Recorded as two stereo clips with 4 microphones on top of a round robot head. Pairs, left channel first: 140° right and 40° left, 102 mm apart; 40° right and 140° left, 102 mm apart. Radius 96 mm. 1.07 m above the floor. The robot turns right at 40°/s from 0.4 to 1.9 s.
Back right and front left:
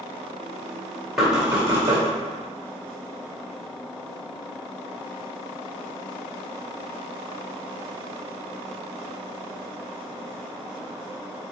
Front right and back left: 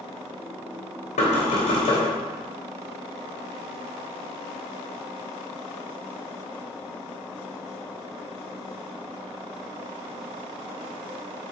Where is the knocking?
50° right, 2.5 m; by 2.0 s 20° right, 2.5 m.